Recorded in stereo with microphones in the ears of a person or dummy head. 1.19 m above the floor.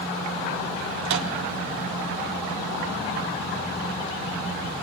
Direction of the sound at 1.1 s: 75° right (ahead or behind).